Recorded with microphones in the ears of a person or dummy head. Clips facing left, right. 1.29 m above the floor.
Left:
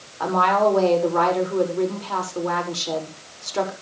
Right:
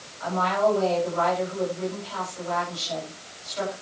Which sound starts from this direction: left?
A woman speaking, at 0.2 s.